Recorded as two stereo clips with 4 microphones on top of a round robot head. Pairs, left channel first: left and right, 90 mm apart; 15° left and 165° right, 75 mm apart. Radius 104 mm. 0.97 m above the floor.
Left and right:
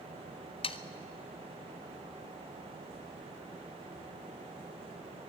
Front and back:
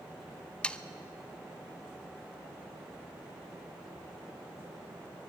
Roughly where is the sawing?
Left.